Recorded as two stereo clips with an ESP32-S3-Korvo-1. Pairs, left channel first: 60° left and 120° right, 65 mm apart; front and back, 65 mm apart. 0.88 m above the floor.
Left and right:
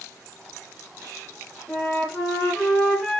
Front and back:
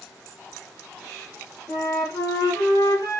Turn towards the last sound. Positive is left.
turn(degrees=-5)